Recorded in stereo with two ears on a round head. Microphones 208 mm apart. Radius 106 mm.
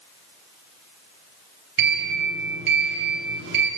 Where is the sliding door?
45° right (ahead or behind), 9.5 m.